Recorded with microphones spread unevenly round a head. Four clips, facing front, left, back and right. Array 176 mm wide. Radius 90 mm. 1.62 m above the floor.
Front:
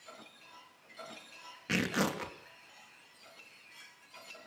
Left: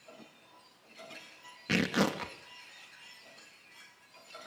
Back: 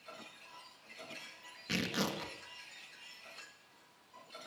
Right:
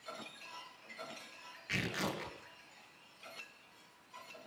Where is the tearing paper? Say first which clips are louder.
Left 9 dB, front 4 dB; 75° left, 3 m.